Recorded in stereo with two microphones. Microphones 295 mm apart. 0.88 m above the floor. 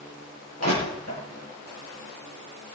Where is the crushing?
60° left (ahead or behind), 7 m.